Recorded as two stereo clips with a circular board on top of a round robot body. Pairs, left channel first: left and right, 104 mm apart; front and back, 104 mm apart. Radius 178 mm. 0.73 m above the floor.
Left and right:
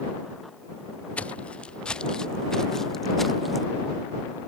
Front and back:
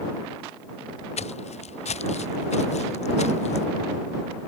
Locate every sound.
1.2 s footsteps: 10° left; by 3.6 s straight ahead